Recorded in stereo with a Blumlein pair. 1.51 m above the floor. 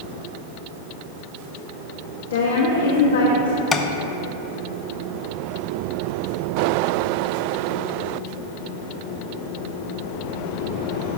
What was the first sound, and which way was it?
A woman speaking, 65° left.